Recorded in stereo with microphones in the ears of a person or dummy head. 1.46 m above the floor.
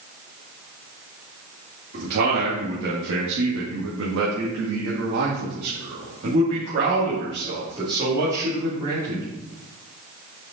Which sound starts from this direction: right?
A man speaking, at 1.9 s.